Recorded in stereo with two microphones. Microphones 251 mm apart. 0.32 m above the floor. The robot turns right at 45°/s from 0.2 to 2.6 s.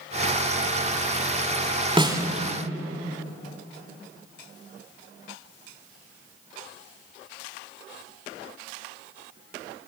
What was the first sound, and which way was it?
A snare drum, 20° right (ahead or behind).